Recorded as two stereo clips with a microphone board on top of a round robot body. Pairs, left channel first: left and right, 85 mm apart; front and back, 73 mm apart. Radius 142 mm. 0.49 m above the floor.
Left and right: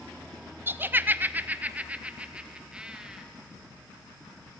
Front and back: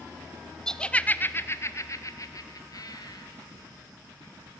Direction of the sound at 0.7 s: 75° right.